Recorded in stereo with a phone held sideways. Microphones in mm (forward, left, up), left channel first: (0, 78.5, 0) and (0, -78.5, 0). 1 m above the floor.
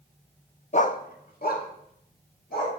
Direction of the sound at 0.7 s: 45° left (ahead or behind).